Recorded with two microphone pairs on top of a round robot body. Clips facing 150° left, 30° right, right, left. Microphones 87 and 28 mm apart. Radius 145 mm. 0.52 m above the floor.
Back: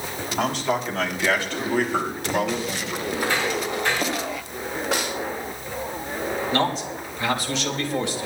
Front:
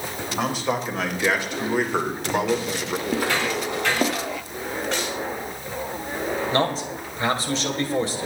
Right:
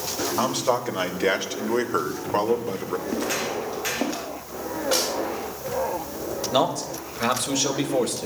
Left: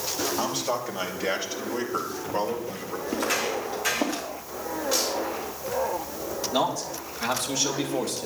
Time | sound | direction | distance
0.4 | a man speaking | 110° right | 3.5 m
3.1 | footsteps | 5° right | 4 m
4.9 | a snare drum | 125° right | 5 m
6.5 | a man speaking | 85° right | 3 m